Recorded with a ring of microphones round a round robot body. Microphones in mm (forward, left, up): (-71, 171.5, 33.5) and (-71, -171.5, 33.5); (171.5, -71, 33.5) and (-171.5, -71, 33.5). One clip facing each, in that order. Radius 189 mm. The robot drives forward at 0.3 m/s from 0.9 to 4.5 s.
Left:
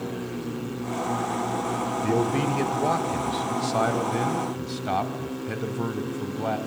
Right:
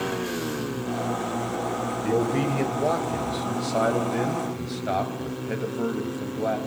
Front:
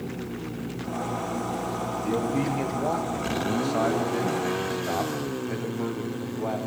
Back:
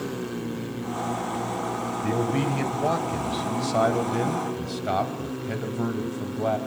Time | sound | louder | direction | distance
2.0 | a man speaking | right 1 dB, back 1 dB | 150° left | 1.9 m